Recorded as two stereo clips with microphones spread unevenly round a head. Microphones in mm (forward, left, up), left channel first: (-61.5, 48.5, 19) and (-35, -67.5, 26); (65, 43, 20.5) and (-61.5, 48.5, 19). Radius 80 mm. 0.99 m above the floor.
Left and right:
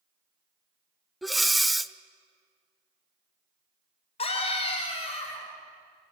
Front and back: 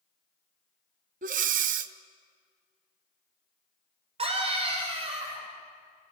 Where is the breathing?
165° right, 0.5 m.